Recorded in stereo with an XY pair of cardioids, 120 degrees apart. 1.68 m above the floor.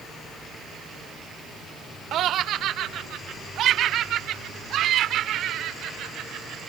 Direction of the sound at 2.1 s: 60° right.